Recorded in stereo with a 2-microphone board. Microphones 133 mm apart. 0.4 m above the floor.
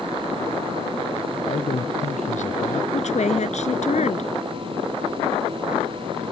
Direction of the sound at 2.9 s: 60° left (ahead or behind).